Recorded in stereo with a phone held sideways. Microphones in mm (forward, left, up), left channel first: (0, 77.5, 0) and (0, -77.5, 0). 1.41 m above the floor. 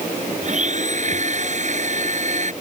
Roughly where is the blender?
Right.